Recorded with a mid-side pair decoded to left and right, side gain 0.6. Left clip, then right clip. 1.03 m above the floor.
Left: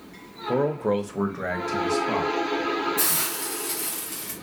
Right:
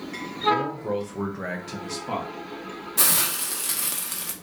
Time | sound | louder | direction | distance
0.5 | a man speaking | left 2 dB | 70° left | 0.6 m
3.0 | a hiss | right 2 dB | 50° right | 1.0 m